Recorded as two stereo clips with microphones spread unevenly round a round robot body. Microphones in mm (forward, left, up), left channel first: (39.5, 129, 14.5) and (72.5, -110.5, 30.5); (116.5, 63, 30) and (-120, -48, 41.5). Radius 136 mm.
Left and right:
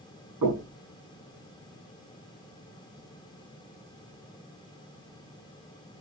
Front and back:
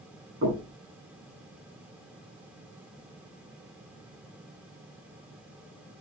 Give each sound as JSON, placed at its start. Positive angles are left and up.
{"t": 0.4, "sound": "knocking", "azimuth_deg": -110, "distance_m": 8.5}